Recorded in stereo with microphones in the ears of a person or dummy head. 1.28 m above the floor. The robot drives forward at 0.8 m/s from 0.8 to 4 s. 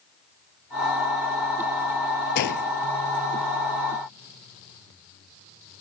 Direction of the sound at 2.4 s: 60° left (ahead or behind).